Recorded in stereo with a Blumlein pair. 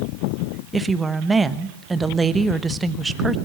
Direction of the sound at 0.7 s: 15° right.